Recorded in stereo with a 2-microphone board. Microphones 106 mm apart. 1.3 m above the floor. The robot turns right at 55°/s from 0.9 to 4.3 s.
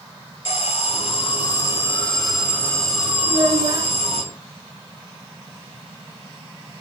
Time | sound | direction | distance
0.5 | an alarm | 105° left | 2.5 m
3.2 | a child speaking | 85° right | 1.8 m